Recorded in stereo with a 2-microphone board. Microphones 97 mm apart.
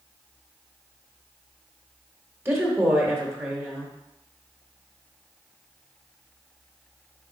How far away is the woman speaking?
About 0.9 m.